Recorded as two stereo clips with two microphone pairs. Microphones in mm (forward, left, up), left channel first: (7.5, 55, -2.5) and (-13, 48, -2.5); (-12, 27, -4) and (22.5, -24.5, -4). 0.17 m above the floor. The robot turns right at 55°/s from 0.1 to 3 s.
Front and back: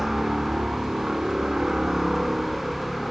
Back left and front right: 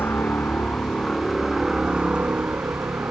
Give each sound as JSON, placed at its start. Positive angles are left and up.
{"t": 0.0, "sound": "a helicopter", "azimuth_deg": 140}